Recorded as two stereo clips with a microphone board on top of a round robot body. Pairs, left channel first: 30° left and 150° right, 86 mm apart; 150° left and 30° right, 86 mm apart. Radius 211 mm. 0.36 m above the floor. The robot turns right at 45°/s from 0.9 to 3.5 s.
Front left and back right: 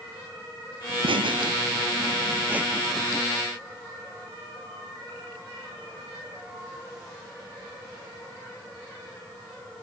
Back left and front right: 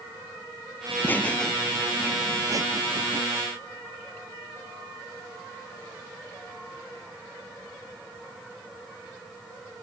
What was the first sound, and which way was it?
Laughter, 155° right.